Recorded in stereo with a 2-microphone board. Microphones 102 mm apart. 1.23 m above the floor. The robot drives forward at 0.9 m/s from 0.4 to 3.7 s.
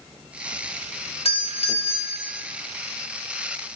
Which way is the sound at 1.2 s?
75° left (ahead or behind).